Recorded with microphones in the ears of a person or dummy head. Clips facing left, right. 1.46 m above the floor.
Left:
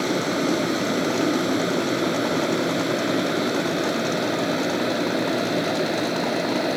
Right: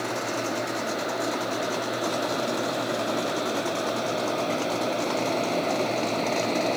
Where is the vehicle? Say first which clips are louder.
Left 7 dB; 45° left (ahead or behind); by 6.8 s 15° left (ahead or behind).